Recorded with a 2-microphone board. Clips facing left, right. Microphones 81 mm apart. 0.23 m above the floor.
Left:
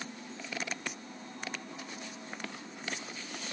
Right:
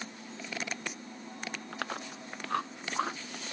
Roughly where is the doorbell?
No doorbell in this recording.